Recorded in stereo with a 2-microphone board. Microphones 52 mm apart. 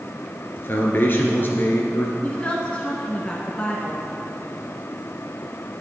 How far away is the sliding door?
I don't hear a sliding door.